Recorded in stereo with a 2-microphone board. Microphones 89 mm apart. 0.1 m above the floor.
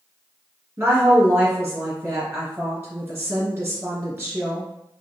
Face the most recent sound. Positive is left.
turn(degrees=-25)  # may be behind; listen again after turning